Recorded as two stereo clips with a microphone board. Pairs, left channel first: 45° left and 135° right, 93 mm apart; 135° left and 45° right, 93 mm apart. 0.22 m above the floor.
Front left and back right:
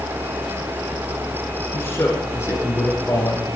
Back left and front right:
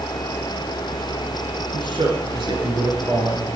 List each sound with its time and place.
1.7 s a man speaking: 20° right, 3.5 m; by 3.5 s 10° right, 2 m